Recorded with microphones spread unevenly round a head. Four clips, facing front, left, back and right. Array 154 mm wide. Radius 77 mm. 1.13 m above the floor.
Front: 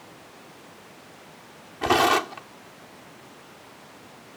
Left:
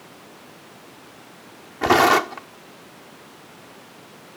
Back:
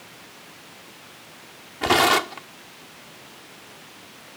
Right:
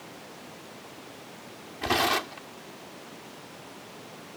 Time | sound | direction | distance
1.8 | tearing paper | 100° left | ?